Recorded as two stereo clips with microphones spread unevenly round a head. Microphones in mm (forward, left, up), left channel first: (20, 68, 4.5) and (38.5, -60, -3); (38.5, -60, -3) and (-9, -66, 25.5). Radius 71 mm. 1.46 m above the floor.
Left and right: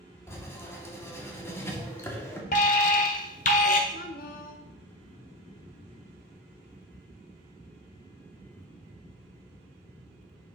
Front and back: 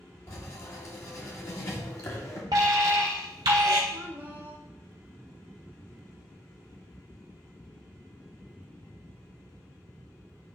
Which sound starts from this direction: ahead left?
Writing, at 0.3 s.